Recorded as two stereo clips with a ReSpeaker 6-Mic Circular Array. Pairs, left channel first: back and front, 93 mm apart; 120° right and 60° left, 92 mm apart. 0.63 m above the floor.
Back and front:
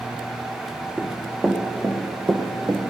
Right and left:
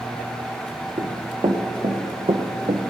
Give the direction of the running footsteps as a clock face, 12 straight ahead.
9 o'clock.